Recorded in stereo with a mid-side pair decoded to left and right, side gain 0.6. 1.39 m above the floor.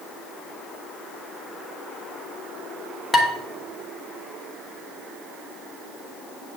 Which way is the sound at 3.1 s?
20° left.